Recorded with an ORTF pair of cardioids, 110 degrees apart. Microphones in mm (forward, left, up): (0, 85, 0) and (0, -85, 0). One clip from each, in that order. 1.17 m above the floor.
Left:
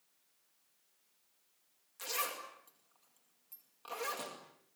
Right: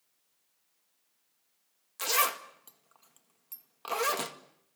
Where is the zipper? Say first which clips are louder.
Right 10 dB; 60° right, 2 m.